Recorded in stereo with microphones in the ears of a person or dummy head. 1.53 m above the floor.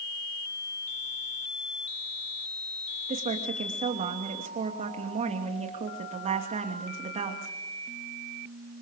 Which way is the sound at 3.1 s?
35° right (ahead or behind).